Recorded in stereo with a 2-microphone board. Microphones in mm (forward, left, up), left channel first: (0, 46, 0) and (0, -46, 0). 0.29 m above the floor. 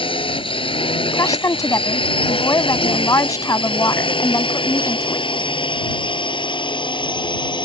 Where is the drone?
75° left (ahead or behind); by 7.7 s 60° left (ahead or behind).